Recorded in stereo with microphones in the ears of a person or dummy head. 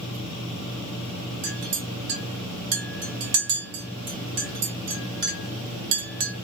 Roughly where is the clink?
Right.